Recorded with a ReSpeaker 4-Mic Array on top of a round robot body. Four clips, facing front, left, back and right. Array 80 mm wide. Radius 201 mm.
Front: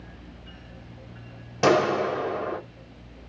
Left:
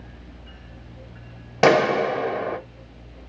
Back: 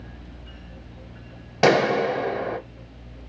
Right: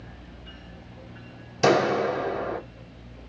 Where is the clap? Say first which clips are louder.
Left 4 dB, back 2 dB; 110° left, 1.3 m.